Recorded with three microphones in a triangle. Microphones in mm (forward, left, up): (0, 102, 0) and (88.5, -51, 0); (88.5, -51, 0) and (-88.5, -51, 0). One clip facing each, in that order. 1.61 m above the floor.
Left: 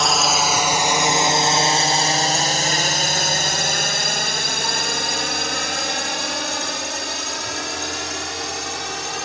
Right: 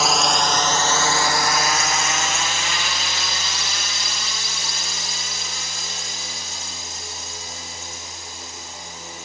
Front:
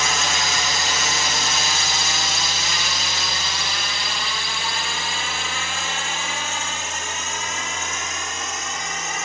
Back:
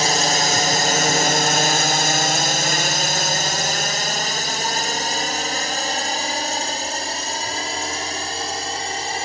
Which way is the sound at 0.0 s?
145° right.